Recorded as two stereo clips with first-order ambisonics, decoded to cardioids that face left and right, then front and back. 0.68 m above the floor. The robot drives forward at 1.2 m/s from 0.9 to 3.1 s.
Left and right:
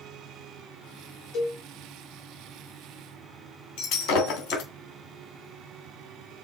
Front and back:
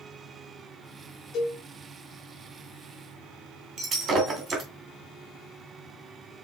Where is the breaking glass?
120° left, 2.5 m.